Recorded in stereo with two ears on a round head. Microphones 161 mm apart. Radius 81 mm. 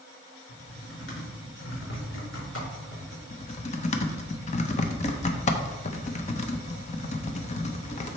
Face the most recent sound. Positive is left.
turn(degrees=40)  # may be behind; listen again after turning